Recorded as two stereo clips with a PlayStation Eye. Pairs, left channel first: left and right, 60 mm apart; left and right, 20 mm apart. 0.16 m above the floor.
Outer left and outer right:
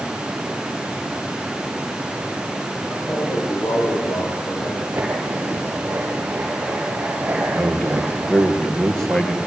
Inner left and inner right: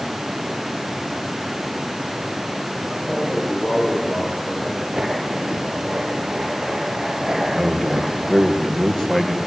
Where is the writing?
35° right (ahead or behind), 4 m.